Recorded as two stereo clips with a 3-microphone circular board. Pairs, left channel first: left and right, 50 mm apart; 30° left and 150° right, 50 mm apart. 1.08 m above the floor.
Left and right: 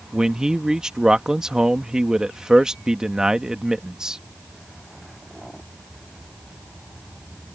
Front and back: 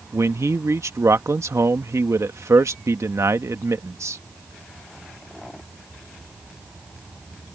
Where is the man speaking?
165° right.